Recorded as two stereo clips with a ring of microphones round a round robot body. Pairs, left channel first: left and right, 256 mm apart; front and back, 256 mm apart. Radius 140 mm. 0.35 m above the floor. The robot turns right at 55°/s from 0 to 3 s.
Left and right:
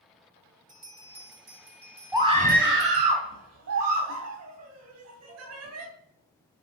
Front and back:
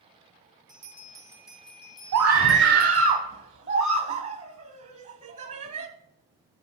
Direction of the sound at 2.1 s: 165° right.